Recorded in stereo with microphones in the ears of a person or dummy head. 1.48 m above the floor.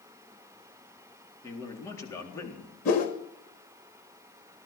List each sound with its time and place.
1.4 s a man speaking: 20° left (ahead or behind), 3.5 m
2.9 s a whoosh: 45° left (ahead or behind), 1.8 m